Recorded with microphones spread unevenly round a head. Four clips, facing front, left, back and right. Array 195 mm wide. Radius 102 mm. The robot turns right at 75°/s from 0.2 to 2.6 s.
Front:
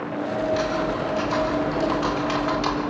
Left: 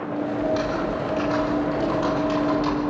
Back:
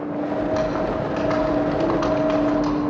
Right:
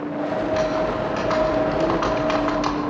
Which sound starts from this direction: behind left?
Typing on a keyboard, at 0.4 s.